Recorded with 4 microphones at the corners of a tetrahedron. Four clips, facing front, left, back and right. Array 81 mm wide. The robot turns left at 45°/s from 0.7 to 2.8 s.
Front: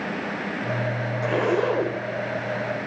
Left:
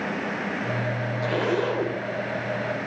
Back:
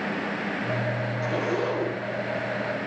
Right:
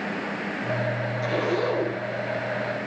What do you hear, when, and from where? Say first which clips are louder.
1.2 s a zipper: left 1 dB, front 5 dB; 5° left, 1.2 m; by 2.0 s 30° right, 1.2 m